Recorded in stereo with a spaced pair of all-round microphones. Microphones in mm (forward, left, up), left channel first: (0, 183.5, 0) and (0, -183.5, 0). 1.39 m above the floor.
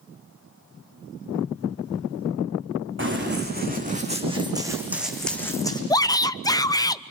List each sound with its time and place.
3.0 s running footsteps: 30° right (ahead or behind), 4 m; by 5.8 s 10° left (ahead or behind), 3 m
5.9 s a shout: 10° left (ahead or behind), 0.6 m